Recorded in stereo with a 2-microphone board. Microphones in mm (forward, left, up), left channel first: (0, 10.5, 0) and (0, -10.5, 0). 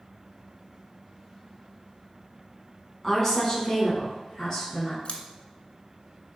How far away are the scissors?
About 0.7 m.